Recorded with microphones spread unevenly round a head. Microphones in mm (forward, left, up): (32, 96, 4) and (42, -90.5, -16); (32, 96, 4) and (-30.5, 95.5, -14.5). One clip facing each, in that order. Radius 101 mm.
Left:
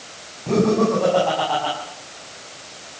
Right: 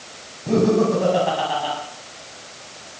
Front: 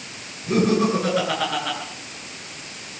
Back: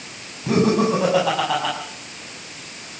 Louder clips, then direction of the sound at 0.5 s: Right 1 dB, back 2 dB; 170° right.